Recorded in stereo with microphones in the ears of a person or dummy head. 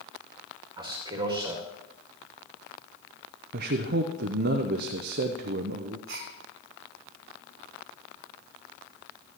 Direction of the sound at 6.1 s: 60° right (ahead or behind).